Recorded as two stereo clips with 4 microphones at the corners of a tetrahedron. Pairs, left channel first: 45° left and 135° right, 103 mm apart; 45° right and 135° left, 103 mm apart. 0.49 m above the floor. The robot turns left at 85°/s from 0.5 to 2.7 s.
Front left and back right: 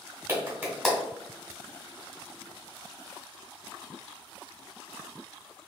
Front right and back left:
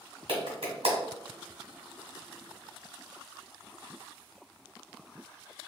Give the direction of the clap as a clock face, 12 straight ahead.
7 o'clock.